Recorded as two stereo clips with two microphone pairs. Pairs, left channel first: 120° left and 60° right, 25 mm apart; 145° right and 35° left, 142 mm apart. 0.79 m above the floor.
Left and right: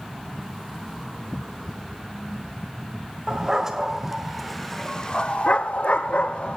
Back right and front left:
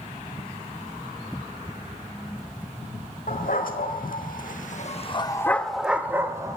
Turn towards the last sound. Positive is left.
turn(degrees=105)